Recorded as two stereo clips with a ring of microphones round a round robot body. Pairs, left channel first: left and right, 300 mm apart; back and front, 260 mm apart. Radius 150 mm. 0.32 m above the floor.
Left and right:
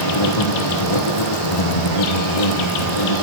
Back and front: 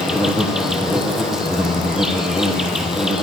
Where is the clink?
I don't hear a clink.